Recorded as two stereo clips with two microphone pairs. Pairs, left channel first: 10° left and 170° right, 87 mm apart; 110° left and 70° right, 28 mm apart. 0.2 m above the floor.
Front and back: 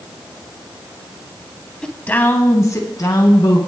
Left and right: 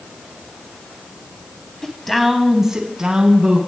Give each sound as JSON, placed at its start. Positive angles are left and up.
{"t": 1.8, "sound": "a woman speaking", "azimuth_deg": 75, "distance_m": 1.0}